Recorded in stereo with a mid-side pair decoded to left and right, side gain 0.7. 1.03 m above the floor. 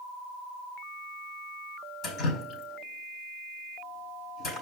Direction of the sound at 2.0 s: 45° left.